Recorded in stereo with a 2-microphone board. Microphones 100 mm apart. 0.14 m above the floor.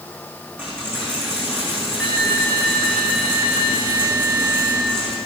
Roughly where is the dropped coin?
Centre.